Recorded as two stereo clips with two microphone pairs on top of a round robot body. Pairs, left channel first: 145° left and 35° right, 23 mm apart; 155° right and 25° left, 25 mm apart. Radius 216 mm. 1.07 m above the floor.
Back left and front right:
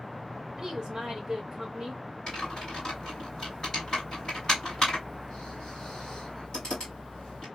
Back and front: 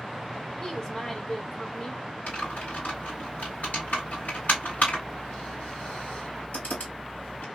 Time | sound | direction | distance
0.6 | a woman speaking | 90° right | 1.4 m
2.3 | typing on a keyboard | 160° right | 2 m